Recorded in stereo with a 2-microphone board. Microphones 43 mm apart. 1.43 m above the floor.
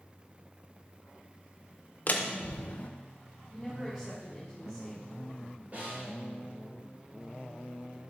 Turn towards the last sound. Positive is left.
turn(degrees=-40)  # may be behind; listen again after turning